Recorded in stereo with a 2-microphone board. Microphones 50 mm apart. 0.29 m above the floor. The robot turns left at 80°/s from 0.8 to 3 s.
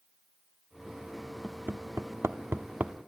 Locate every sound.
1.4 s hammering: 30° right (ahead or behind), 0.8 m